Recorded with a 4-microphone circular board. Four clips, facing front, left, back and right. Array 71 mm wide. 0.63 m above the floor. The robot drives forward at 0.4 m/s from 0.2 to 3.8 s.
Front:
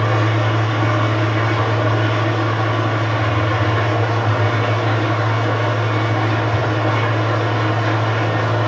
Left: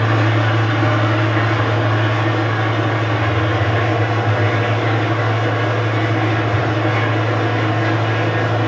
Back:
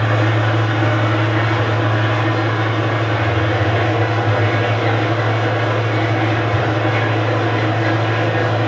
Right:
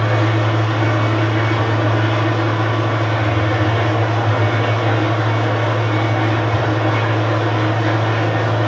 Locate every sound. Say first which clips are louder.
0.0 s an engine running: left 1 dB, back 1 dB; 110° left, 1.5 m; by 8.7 s 145° left, 2.5 m